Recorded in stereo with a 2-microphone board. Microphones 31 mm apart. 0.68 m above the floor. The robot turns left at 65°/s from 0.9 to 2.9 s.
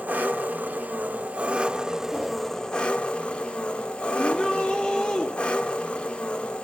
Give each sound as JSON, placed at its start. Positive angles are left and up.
{"t": 0.0, "sound": "an engine running", "azimuth_deg": -90, "distance_m": 1.3}
{"t": 2.1, "sound": "a whoosh", "side_deg": 50, "distance_m": 9.0}
{"t": 4.2, "sound": "a shout", "side_deg": 35, "distance_m": 1.2}